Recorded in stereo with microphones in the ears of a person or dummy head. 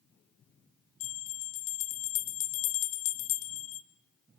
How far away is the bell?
About 1.3 m.